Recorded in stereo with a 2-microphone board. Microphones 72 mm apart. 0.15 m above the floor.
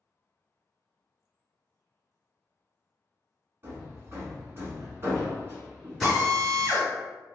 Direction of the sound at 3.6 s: 35° right (ahead or behind).